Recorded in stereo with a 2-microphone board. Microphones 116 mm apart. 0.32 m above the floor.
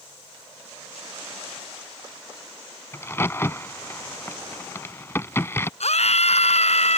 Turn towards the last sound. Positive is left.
turn(degrees=70)  # may be behind; listen again after turning